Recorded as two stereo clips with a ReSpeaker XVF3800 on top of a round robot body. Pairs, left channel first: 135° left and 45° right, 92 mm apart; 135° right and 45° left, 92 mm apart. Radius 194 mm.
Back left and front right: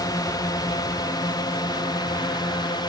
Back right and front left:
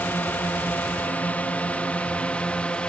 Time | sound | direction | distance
0.0 | a drone | 160° left | ?